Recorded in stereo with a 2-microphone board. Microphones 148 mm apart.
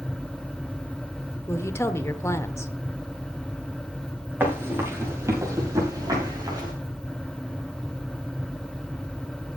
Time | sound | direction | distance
1.5 | a woman speaking | 20° left (ahead or behind) | 1.2 m
4.4 | running footsteps | 15° right (ahead or behind) | 7 m